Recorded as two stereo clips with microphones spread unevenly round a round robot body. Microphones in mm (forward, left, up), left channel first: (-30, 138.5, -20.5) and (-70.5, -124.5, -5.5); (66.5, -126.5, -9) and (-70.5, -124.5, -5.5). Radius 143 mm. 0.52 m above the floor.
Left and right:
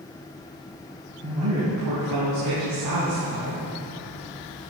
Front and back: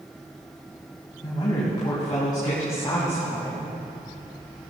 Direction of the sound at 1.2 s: 55° right.